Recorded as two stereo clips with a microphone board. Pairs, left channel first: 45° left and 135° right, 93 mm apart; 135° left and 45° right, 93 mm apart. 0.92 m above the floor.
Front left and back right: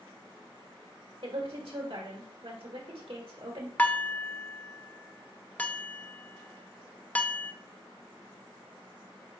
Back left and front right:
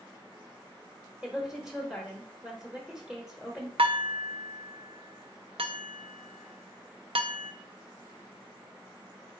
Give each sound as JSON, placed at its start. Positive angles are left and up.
{"t": 1.2, "sound": "a woman speaking", "azimuth_deg": -125, "distance_m": 1.2}
{"t": 3.8, "sound": "dishes clattering", "azimuth_deg": -30, "distance_m": 0.6}